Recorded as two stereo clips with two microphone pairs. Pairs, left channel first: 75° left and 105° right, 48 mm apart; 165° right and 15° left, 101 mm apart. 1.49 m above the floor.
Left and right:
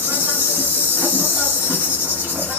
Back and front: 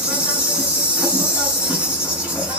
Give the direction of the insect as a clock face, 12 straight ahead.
2 o'clock.